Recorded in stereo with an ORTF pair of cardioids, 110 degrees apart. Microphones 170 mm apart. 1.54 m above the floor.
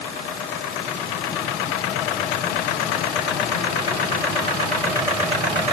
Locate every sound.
Only background noise.